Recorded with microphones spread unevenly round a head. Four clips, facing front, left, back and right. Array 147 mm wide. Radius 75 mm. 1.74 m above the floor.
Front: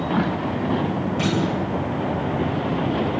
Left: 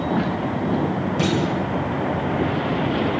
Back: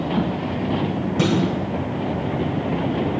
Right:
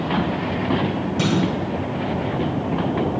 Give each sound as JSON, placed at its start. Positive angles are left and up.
{"t": 1.2, "sound": "a clunk", "azimuth_deg": 165, "distance_m": 7.0}